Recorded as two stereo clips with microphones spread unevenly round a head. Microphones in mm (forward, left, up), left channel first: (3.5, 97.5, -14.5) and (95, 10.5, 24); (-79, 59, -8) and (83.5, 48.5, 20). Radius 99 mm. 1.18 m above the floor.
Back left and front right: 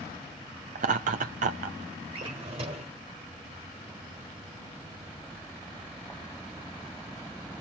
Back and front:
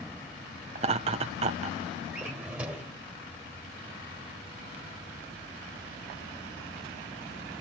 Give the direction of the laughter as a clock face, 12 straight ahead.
2 o'clock.